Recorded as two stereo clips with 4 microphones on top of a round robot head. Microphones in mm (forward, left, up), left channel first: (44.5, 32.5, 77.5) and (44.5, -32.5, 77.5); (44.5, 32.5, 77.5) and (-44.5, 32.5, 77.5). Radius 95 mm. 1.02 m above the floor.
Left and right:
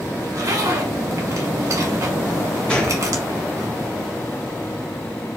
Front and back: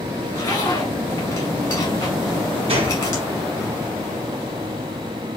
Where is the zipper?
60° right, 2 m.